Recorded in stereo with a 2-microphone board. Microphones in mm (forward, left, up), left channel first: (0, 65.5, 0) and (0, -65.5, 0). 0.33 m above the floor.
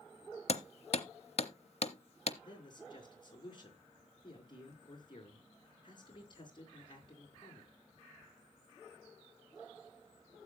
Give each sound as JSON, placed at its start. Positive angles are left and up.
{"t": 0.5, "sound": "hammering", "side_deg": 55, "distance_m": 0.8}
{"t": 2.4, "sound": "a man speaking", "side_deg": 35, "distance_m": 4.0}